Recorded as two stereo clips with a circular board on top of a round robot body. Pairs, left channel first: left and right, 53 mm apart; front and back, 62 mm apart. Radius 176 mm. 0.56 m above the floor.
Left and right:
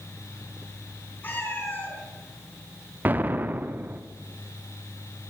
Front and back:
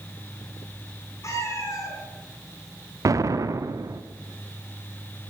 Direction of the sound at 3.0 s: 145° right.